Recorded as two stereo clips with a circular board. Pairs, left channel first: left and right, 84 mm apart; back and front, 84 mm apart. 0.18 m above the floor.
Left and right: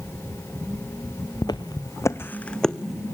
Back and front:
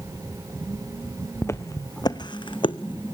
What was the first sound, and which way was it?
Footsteps, 120° left.